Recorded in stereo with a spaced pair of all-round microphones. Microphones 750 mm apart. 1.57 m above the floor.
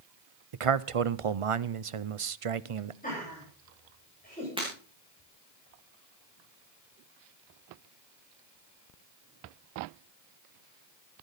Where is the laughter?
10° left (ahead or behind), 10 m.